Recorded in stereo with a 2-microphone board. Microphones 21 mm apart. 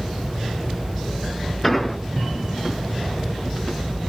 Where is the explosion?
10° left (ahead or behind), 0.7 m.